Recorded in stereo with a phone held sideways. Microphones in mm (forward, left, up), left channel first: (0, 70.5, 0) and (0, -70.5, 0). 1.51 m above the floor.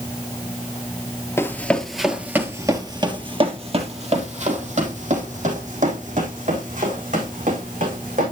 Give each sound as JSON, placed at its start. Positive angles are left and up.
{"t": 1.4, "sound": "running footsteps", "side_deg": 15, "distance_m": 1.5}